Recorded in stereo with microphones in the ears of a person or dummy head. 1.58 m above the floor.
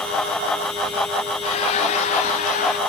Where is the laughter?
35° left (ahead or behind), 1.4 m; by 2.8 s 55° left (ahead or behind), 2 m.